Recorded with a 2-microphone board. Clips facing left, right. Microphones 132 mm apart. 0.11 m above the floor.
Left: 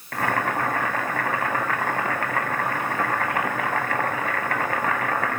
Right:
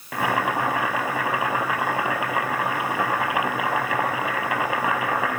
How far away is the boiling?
About 1.1 m.